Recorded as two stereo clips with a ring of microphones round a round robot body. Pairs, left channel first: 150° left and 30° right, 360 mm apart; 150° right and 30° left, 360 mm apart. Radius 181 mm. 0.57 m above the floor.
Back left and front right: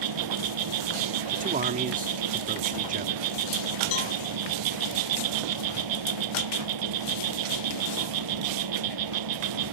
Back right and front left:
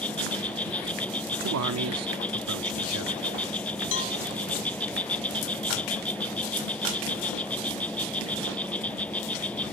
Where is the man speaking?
25° left.